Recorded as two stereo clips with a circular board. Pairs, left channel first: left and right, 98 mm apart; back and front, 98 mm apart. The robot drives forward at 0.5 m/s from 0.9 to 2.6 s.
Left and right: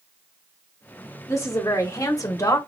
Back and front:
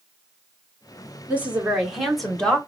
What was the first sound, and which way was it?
A woman speaking, 60° left.